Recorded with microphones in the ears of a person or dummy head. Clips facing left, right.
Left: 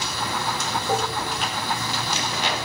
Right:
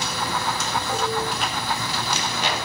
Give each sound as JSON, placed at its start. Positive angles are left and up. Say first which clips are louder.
{"t": 0.9, "sound": "dishes clattering", "louder": "left 1 dB", "side_deg": 20, "distance_m": 5.0}